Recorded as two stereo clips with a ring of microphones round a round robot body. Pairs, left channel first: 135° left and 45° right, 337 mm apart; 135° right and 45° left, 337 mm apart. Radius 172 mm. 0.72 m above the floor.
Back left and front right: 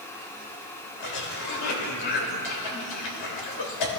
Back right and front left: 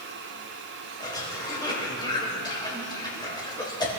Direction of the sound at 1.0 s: 145° left.